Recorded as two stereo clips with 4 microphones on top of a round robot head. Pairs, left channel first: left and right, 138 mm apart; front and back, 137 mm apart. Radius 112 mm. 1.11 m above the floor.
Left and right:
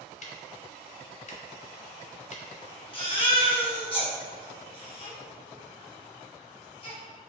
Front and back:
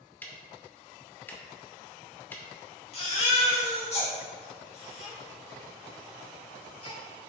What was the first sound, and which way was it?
Ticking, 75° left.